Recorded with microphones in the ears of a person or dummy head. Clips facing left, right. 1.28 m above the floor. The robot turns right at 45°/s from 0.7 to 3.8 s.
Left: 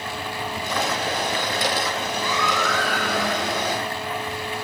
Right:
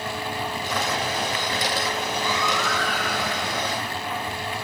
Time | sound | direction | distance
2.2 | a baby crying | 50° left | 7 m